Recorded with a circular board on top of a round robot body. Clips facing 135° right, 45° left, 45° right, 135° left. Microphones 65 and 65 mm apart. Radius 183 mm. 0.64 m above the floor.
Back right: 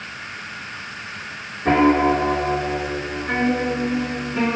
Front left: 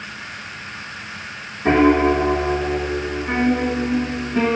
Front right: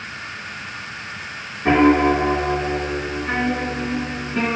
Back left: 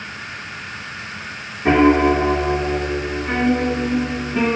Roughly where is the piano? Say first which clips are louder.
Front left 1 dB, back left 1 dB; ahead left.